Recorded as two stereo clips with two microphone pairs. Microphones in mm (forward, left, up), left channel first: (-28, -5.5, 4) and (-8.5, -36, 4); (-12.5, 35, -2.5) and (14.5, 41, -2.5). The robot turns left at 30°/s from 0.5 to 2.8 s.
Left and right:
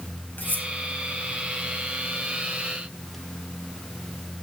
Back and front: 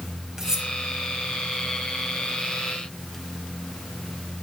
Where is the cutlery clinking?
85° left, 2.5 m; by 0.7 s 80° left, 2.5 m.